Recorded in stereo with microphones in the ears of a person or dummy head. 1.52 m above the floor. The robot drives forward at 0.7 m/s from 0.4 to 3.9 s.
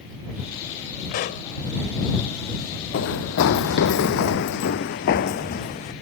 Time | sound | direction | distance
1.1 | a pop | 40° left (ahead or behind) | ?
2.9 | running footsteps | 60° left (ahead or behind) | ?